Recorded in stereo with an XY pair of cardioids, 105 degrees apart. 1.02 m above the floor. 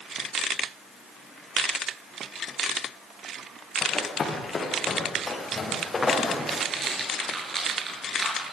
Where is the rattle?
35° right, 8.5 m.